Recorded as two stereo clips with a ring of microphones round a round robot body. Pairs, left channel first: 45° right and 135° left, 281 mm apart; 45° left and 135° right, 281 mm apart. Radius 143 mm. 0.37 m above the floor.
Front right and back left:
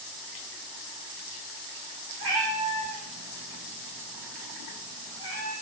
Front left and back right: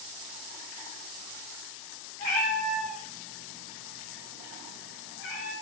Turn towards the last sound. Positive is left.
turn(degrees=25)